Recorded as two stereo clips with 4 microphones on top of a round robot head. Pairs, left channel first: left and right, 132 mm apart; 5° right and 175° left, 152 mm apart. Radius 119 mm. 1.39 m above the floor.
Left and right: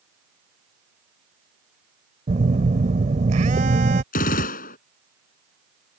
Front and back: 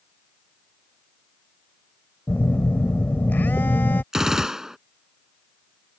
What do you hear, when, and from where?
2.3 s a phone buzzing: 85° right
4.1 s a gunshot: 90° left